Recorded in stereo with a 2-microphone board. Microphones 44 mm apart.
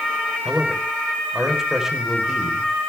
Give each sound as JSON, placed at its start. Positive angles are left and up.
{"t": 0.5, "sound": "a man speaking", "side_deg": -10, "distance_m": 4.0}